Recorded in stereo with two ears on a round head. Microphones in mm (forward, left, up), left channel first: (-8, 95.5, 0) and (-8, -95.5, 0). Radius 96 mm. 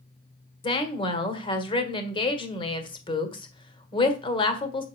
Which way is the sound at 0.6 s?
25° left (ahead or behind).